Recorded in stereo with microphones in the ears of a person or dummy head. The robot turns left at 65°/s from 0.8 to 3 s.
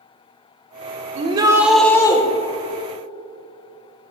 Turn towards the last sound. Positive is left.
turn(degrees=100)